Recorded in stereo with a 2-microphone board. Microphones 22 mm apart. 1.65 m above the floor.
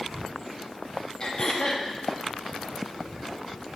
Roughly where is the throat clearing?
Left.